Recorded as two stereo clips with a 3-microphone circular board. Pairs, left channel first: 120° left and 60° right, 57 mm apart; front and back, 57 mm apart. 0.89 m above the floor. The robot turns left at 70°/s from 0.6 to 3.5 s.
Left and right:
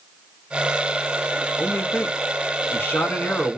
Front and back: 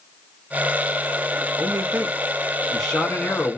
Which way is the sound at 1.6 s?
Straight behind.